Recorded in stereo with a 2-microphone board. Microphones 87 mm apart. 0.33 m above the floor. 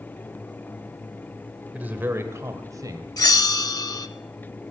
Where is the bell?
45° left (ahead or behind), 0.6 m.